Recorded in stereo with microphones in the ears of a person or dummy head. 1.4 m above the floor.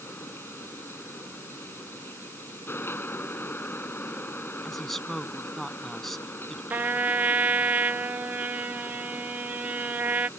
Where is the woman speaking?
Centre (ahead or behind).